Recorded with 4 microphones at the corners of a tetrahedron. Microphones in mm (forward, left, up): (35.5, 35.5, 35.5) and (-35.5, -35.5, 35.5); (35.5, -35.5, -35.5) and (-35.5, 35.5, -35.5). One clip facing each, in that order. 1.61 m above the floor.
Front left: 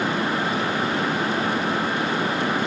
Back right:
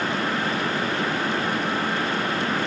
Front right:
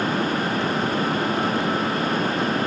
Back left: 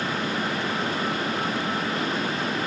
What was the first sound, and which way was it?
Only background noise.